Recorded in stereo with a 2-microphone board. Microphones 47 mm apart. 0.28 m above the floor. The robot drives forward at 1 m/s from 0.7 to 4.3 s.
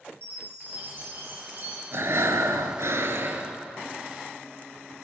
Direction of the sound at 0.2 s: 55° right (ahead or behind).